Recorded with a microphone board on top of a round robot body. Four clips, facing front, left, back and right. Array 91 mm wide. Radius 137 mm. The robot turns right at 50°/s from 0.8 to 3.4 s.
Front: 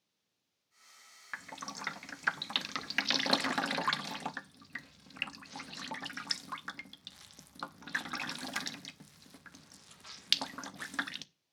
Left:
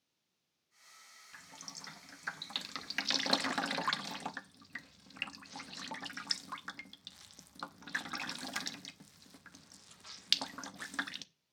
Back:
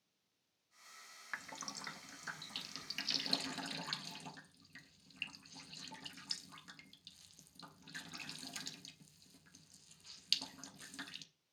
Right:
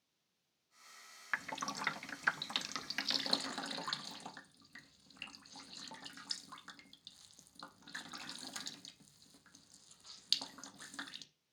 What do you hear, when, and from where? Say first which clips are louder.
1.3 s dripping: right 14 dB, front 5 dB; 80° right, 0.8 m; by 11.2 s 25° left, 0.8 m